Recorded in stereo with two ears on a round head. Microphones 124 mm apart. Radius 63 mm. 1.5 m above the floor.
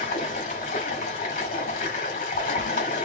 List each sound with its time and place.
0.0 s running water: 55° left (ahead or behind), 1.7 m